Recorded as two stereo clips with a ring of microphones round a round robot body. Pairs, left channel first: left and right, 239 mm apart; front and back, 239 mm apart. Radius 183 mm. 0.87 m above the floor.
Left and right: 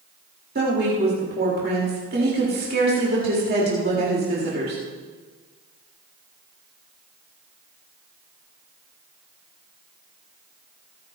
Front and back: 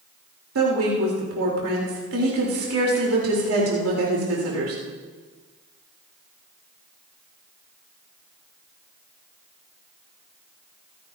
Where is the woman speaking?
145° right, 4 m.